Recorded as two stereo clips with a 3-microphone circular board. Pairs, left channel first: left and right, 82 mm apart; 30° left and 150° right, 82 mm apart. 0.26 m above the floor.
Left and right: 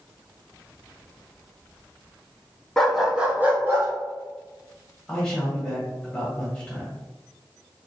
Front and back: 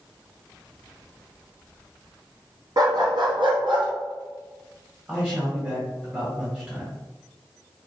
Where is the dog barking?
175° left, 0.9 m; by 3.9 s 145° right, 1.3 m.